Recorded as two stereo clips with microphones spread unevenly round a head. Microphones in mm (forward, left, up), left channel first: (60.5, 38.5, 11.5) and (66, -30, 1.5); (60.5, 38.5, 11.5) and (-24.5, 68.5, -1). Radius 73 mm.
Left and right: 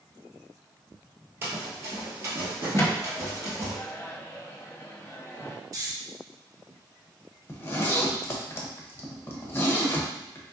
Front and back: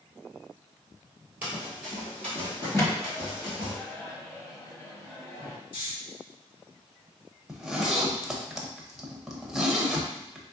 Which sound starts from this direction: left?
A zipper, at 7.5 s.